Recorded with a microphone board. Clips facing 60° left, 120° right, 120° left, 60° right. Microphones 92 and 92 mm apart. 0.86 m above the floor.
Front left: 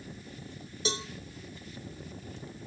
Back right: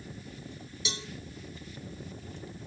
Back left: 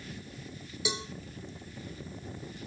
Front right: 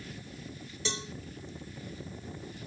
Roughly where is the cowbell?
Ahead left.